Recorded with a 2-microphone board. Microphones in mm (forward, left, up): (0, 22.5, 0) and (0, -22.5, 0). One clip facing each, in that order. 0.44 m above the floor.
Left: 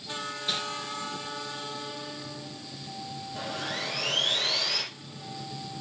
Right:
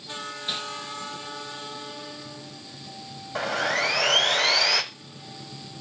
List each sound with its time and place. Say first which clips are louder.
0.5 s crumpling: even; 5° right (ahead or behind), 3.5 m
3.4 s sawing: right 10 dB; 75° right (ahead or behind), 1.0 m